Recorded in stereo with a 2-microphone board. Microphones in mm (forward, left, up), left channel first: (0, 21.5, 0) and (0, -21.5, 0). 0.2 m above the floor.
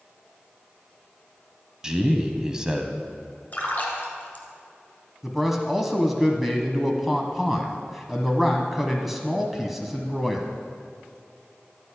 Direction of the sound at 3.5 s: 35° left (ahead or behind).